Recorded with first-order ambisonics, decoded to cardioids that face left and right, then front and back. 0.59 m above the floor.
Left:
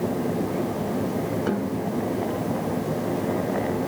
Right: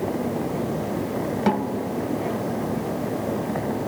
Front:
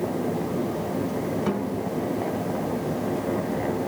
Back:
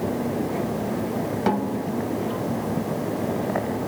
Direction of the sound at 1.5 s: 130° right.